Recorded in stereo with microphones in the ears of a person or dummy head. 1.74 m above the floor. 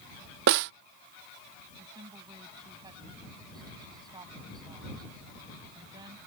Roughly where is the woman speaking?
Right.